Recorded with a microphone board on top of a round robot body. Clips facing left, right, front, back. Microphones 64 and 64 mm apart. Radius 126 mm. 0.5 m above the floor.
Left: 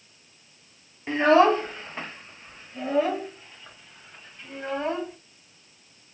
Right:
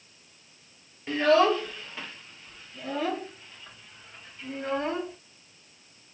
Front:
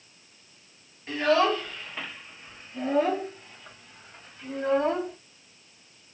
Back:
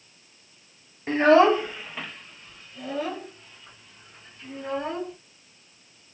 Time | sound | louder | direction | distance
1.1 | a child speaking | left 3 dB, back 6 dB | 145° left | 1.1 m